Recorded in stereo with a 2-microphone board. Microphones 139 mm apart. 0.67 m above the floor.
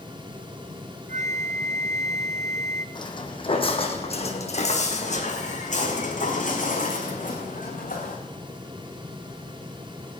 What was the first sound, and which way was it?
A flute, 55° right (ahead or behind).